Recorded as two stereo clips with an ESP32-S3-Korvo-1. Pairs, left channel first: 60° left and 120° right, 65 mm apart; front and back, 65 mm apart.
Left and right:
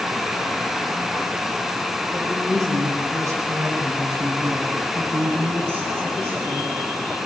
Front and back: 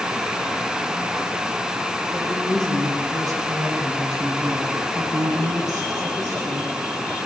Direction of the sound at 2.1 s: 145° right.